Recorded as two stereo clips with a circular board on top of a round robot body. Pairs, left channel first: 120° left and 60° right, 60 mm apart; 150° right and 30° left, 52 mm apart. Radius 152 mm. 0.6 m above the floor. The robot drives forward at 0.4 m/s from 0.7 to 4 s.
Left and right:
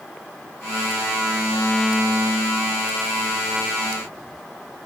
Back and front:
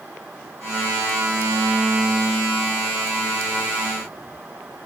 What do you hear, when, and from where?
Only background noise.